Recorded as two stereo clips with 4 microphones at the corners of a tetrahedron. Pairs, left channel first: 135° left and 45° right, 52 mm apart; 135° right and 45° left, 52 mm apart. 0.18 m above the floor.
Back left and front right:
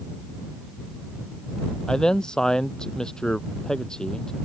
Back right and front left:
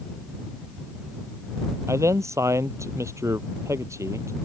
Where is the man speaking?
60° left.